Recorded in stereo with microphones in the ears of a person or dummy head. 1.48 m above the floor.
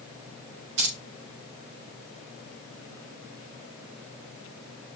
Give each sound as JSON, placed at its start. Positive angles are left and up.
{"t": 0.8, "sound": "keys jangling", "side_deg": -70, "distance_m": 5.5}